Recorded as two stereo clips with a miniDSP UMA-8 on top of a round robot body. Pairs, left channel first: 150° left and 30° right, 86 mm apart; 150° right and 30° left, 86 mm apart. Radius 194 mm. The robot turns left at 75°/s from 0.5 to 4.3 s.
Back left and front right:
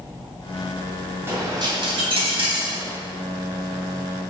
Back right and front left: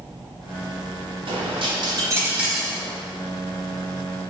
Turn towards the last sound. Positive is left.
turn(degrees=170)